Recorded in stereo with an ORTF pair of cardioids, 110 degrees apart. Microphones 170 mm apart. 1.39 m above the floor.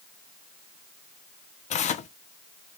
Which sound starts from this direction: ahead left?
Tearing paper, at 1.7 s.